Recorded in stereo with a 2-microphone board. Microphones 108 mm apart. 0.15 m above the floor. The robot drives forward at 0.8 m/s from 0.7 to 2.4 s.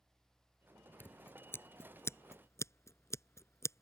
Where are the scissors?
20° left (ahead or behind); by 3.8 s 25° left (ahead or behind).